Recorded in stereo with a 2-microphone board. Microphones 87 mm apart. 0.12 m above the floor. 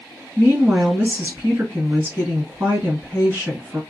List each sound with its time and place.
0.4 s a woman speaking: 20° right (ahead or behind), 1.6 m